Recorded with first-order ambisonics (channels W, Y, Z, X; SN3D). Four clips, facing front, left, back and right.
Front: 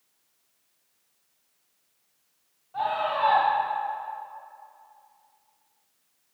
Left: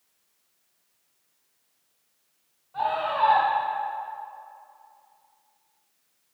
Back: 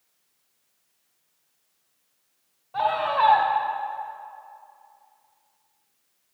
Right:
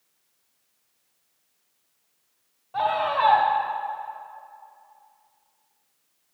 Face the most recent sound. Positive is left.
turn(degrees=-120)